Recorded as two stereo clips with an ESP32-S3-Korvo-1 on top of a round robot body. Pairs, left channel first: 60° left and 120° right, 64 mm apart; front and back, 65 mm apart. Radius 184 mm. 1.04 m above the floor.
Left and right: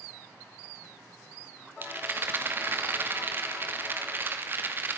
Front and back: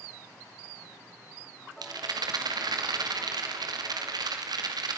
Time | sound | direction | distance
1.8 | a rattle | straight behind | 2.5 m